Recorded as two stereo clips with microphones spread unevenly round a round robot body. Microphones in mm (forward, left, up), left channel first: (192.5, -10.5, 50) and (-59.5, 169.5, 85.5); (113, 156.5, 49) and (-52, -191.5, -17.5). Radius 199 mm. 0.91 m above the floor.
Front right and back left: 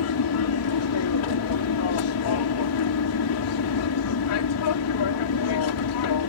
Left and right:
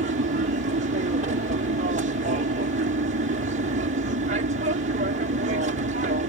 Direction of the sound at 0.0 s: 55° right.